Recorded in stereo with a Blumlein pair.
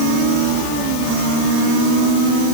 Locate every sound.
Only background noise.